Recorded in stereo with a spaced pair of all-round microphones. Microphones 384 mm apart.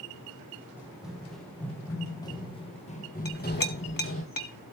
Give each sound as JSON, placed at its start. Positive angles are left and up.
{"t": 0.8, "sound": "running footsteps", "side_deg": -5, "distance_m": 3.0}
{"t": 3.2, "sound": "a clink", "side_deg": 60, "distance_m": 1.3}